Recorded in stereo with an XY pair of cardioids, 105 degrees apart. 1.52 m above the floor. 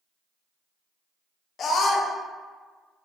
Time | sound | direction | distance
1.6 | a scream | 60° left | 0.5 m